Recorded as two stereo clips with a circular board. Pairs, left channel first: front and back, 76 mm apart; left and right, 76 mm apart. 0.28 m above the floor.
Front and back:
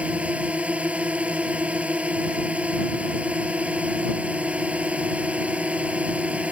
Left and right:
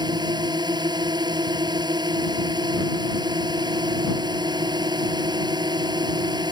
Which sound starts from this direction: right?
A drone, at 0.0 s.